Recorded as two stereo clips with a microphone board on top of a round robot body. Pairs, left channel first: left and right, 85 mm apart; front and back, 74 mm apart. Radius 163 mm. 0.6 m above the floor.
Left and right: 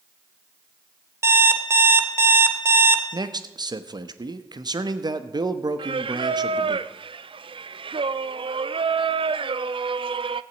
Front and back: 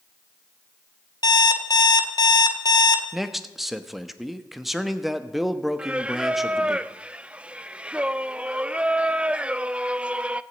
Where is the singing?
105° right, 0.5 m.